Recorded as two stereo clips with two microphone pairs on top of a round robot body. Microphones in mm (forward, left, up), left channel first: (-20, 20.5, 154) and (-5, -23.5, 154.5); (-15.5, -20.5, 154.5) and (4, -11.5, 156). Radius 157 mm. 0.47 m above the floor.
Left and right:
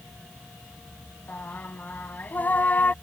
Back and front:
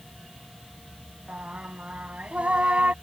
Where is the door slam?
No door slam in this recording.